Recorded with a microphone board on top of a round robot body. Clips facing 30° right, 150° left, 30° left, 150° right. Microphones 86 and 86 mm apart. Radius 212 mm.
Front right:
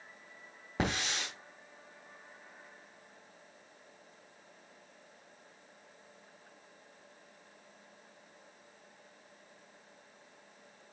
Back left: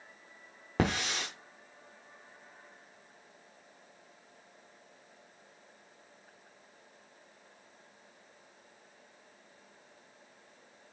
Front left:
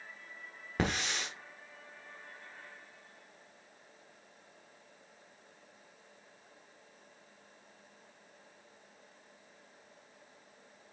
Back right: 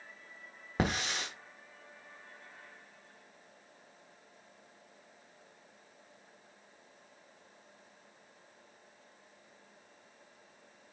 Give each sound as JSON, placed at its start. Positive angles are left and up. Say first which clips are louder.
{"t": 0.8, "sound": "a hiss", "louder": "back left 3 dB, back right 1 dB", "azimuth_deg": 135, "distance_m": 0.8}